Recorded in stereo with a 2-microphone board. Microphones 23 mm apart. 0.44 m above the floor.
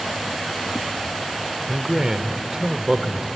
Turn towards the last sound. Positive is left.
turn(degrees=-35)  # may be behind; listen again after turning